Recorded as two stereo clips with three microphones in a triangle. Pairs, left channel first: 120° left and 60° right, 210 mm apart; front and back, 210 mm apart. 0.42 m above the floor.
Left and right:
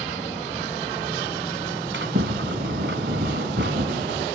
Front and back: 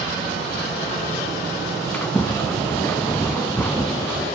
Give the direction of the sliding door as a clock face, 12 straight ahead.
3 o'clock.